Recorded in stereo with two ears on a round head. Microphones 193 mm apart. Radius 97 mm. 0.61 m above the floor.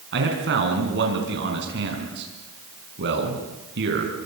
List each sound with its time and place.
0.1 s a man speaking: 55° right (ahead or behind), 6 m